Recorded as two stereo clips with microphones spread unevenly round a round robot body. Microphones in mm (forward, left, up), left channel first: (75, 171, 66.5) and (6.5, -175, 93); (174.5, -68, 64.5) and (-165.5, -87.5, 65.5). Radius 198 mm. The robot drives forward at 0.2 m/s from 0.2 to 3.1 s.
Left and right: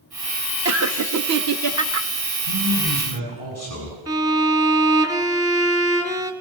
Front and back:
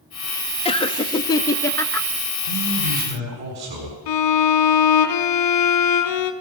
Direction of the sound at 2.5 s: 165° right.